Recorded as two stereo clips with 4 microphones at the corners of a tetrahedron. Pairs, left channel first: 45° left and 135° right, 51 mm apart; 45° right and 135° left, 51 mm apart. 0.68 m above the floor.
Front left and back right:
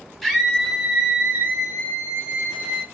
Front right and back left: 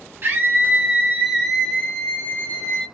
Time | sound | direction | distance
0.2 | a scream | 135° left | 0.8 m